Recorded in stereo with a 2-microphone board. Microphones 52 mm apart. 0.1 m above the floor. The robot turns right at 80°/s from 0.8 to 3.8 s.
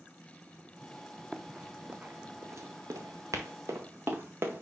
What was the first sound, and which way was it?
Running footsteps, centre (ahead or behind).